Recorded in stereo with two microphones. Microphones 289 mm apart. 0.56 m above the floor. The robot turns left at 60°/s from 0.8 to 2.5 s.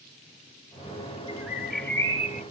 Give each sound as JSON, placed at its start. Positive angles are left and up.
{"t": 1.3, "sound": "a bird", "azimuth_deg": -155, "distance_m": 0.9}